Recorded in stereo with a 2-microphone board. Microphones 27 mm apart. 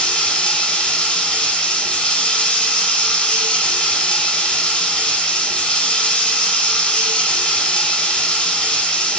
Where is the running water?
45° left (ahead or behind), 2.5 m.